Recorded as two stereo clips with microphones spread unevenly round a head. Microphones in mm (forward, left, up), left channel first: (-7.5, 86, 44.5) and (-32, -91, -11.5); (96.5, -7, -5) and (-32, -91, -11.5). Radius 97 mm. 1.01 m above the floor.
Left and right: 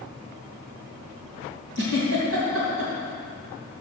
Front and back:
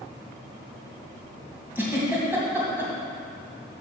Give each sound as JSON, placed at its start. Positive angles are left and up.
{"t": 1.8, "sound": "a giggle", "azimuth_deg": -70, "distance_m": 2.5}